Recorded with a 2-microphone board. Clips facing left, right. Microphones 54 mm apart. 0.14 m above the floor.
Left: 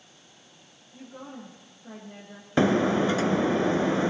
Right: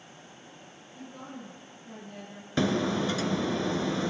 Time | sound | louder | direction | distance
0.9 | a woman speaking | left 1 dB | 25° left (ahead or behind) | 6.5 m
2.6 | breaking glass | left 5 dB | 30° left (ahead or behind) | 0.5 m